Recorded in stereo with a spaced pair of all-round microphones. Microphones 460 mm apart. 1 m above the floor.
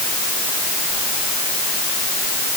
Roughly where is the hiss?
I don't hear a hiss.